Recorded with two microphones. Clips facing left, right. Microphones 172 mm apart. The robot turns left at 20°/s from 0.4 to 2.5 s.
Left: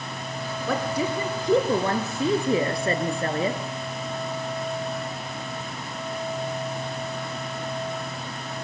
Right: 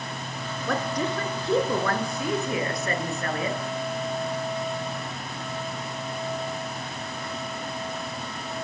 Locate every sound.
0.7 s a woman speaking: 175° left, 2.5 m; by 3.6 s 140° left, 2.5 m